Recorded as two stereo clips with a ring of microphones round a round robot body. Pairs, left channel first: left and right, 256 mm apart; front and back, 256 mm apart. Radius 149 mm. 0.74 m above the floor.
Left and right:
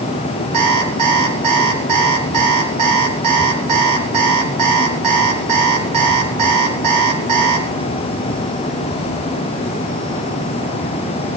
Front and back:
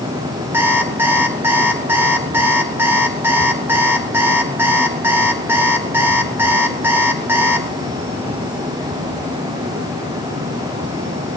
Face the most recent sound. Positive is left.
turn(degrees=-100)